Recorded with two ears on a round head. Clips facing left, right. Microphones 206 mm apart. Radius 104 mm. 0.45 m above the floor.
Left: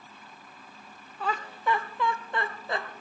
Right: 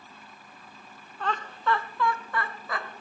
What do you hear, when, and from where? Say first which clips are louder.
1.2 s laughter: even; 5° left (ahead or behind), 0.8 m; by 2.9 s 25° left (ahead or behind), 1.5 m